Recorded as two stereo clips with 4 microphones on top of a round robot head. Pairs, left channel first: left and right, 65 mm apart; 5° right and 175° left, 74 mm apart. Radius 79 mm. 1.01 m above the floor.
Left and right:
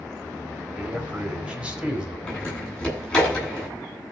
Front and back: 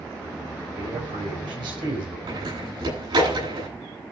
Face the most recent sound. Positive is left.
turn(degrees=165)